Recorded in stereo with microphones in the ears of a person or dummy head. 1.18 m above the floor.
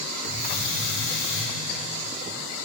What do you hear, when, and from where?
0.2 s a hiss: 60° left (ahead or behind), 4 m